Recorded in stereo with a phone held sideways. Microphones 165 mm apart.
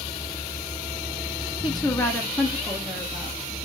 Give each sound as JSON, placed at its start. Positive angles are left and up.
{"t": 1.6, "sound": "a woman speaking", "side_deg": 30, "distance_m": 0.6}